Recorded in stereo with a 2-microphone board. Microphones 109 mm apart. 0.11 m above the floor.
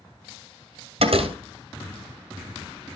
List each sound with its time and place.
1.0 s a door slam: 65° right (ahead or behind), 1.9 m